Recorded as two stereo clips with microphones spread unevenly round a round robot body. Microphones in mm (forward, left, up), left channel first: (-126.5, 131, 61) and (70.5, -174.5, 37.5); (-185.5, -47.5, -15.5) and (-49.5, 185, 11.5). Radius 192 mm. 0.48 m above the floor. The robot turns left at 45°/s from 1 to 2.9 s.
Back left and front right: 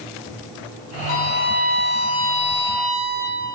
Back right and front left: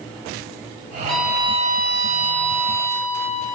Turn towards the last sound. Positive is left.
turn(degrees=70)